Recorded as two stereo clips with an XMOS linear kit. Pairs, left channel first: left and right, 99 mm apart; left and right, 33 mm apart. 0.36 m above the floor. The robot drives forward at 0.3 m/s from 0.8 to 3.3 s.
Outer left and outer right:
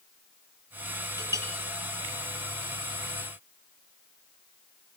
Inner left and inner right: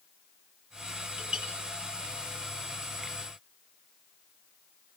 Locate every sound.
1.2 s a clink: 25° right (ahead or behind), 5.5 m